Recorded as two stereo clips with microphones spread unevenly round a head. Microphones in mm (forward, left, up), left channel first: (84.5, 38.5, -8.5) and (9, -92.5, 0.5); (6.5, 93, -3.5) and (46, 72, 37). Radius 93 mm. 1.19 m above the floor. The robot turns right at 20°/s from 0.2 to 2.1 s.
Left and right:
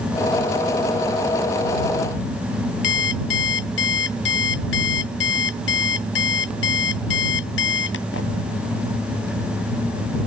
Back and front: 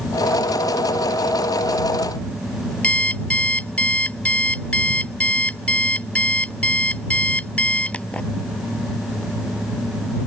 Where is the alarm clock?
90° left.